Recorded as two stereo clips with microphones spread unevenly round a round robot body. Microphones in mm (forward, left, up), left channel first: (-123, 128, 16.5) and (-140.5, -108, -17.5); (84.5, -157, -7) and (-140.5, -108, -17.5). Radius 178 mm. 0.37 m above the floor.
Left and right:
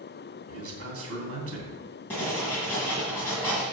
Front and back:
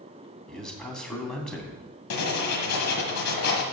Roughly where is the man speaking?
Right.